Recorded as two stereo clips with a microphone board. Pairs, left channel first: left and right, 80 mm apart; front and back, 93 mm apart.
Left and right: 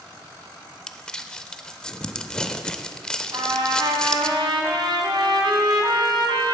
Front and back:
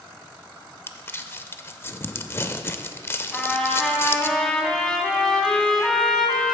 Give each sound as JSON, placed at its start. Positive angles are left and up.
{"t": 0.9, "sound": "crumpling", "azimuth_deg": 20, "distance_m": 0.5}
{"t": 3.3, "sound": "a trumpet", "azimuth_deg": -85, "distance_m": 1.7}